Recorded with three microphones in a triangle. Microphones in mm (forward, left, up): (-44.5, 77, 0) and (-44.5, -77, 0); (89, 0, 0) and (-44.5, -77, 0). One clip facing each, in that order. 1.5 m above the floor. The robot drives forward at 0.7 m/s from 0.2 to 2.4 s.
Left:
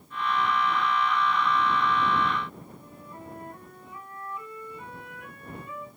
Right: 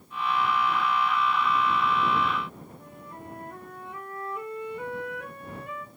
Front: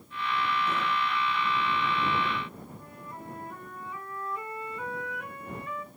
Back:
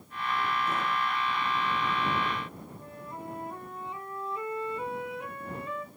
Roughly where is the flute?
Right.